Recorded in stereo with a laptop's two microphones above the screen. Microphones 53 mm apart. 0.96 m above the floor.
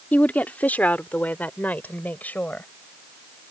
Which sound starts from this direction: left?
A woman speaking, at 0.1 s.